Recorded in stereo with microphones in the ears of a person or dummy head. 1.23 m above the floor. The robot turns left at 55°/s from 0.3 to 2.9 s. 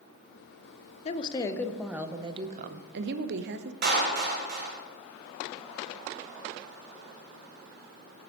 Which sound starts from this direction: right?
A clap, at 3.8 s.